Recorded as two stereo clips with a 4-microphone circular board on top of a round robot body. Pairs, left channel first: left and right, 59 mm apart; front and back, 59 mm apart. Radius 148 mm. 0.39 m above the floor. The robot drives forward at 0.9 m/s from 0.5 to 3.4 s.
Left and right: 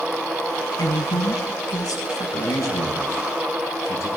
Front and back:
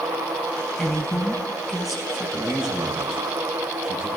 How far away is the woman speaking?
About 5 m.